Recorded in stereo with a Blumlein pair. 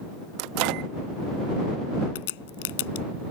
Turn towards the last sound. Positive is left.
turn(degrees=50)